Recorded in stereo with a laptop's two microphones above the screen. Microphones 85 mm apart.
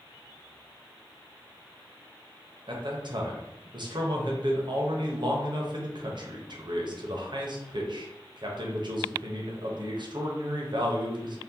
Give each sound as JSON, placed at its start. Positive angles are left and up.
{"t": 2.7, "sound": "a man speaking", "side_deg": -60, "distance_m": 0.9}